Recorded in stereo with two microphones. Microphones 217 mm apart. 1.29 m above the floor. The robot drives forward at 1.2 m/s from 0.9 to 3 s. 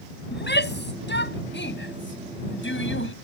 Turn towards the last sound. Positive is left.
turn(degrees=70)  # may be behind; listen again after turning